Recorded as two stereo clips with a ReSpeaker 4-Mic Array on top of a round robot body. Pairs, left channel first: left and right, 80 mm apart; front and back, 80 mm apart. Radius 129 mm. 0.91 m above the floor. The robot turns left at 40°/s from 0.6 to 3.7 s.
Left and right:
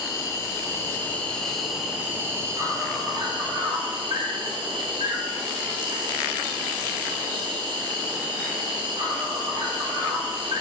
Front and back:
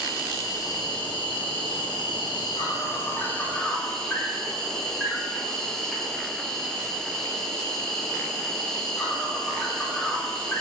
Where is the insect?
40° left, 1.8 m; by 10.6 s 85° right, 1.8 m.